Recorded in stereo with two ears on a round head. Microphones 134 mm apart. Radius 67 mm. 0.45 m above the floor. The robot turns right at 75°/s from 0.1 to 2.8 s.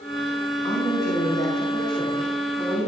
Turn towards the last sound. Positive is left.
turn(degrees=-160)